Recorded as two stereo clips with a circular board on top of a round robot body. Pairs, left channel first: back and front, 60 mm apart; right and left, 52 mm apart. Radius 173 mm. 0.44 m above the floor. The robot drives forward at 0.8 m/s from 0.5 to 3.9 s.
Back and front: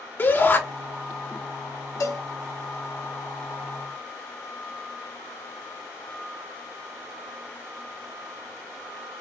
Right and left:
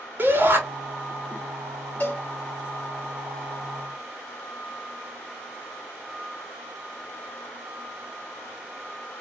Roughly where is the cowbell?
Behind right.